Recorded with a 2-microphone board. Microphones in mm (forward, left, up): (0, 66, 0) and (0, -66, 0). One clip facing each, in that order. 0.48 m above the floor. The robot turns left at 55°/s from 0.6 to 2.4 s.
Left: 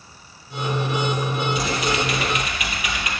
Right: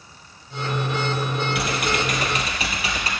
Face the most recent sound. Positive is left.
turn(degrees=-145)